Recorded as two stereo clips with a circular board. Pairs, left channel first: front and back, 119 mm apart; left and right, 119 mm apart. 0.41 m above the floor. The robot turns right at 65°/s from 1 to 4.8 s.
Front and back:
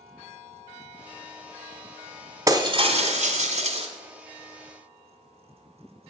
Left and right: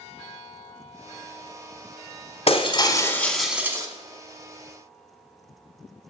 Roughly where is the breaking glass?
Behind left.